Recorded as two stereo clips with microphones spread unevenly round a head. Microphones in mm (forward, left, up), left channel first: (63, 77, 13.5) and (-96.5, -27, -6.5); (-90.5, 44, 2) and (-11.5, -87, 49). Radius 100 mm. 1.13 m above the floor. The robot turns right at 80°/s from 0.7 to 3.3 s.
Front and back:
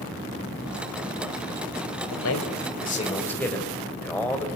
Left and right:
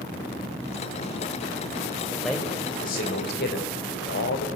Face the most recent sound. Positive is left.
turn(degrees=115)